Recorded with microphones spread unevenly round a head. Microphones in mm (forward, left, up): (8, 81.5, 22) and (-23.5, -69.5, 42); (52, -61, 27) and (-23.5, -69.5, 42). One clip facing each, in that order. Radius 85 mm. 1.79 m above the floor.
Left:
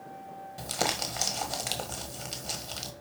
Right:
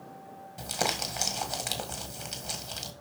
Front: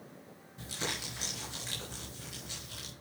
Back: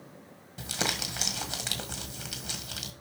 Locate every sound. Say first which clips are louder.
0.6 s crumpling: even, back 6 dB; 170° left, 1.5 m